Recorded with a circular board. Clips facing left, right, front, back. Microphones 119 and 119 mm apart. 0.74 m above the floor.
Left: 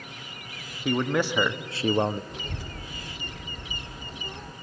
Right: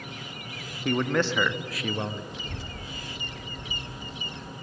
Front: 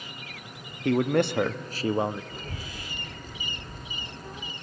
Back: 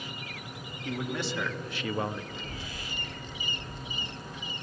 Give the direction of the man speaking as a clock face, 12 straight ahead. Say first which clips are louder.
Even, front 11 dB; 12 o'clock.